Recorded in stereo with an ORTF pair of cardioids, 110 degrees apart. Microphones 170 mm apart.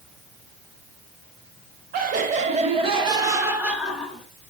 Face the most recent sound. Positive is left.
turn(degrees=5)